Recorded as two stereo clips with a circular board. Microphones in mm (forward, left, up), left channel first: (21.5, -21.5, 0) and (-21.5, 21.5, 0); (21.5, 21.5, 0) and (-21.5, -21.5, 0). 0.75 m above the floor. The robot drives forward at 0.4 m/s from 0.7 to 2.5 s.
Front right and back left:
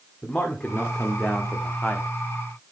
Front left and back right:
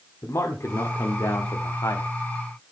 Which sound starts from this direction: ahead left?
A man speaking, at 0.2 s.